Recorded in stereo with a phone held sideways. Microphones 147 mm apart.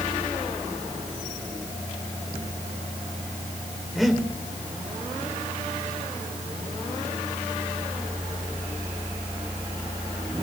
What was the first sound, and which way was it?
Breathing, centre (ahead or behind).